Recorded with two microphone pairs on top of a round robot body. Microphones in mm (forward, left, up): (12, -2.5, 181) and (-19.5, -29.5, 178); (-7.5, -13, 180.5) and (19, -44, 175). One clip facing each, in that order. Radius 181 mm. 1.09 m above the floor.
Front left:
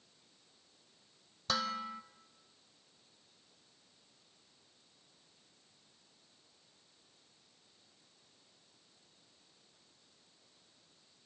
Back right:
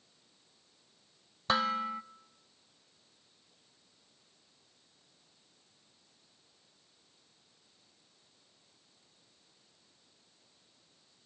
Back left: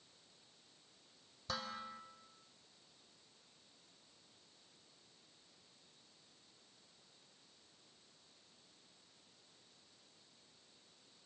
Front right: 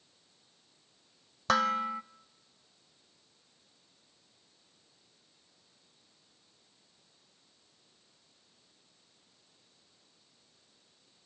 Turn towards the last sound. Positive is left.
turn(degrees=-75)